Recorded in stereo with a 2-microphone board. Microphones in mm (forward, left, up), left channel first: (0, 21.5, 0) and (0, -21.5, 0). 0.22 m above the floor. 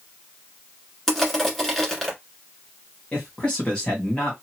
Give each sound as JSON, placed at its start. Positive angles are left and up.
{"t": 1.1, "sound": "crushing", "side_deg": 5, "distance_m": 1.5}
{"t": 3.1, "sound": "a man speaking", "side_deg": 25, "distance_m": 1.4}